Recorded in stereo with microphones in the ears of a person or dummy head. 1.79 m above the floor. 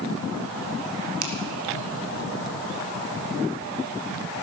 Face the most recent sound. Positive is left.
turn(degrees=-85)